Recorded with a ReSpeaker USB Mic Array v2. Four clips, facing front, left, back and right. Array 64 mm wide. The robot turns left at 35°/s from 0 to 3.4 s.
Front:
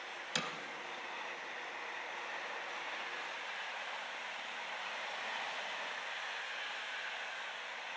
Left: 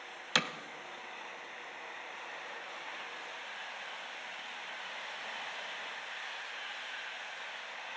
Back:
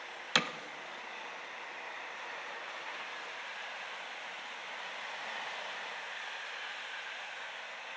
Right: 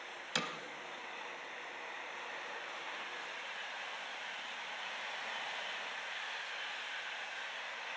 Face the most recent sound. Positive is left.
turn(degrees=35)